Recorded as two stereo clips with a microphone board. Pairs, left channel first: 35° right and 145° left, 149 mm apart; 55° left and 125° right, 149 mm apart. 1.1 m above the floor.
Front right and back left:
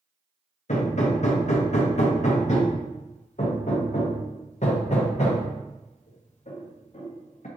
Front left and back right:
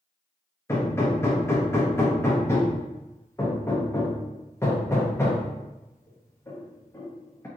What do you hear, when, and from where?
0.7 s hammering: 15° right, 0.7 m